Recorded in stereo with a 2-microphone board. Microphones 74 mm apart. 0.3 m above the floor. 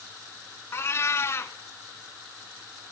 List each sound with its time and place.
0.7 s a cat meowing: 40° left (ahead or behind), 0.7 m